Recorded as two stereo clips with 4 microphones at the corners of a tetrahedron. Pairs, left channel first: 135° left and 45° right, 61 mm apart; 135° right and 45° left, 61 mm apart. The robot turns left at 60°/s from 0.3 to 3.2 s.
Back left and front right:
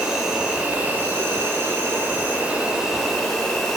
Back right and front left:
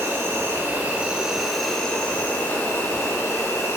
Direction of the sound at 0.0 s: 35° left.